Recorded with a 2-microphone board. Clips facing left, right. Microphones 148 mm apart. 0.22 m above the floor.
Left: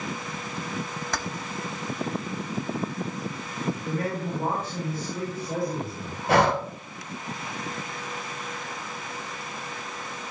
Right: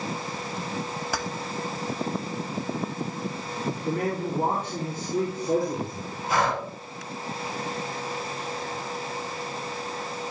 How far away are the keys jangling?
About 0.7 m.